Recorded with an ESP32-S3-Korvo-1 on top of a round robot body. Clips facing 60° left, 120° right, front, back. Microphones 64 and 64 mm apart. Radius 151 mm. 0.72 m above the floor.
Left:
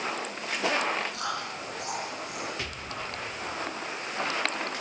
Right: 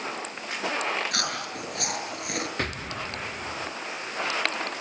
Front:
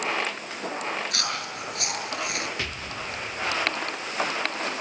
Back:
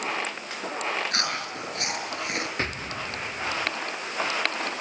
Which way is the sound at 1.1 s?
125° right.